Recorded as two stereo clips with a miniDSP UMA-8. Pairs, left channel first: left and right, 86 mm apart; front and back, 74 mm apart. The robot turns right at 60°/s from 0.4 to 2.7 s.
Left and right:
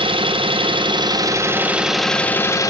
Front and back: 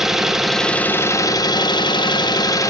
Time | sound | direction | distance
0.0 | an engine running | 95° right | 0.8 m